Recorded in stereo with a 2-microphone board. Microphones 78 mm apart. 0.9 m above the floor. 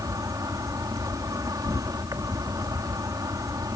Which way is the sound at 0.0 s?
50° right (ahead or behind).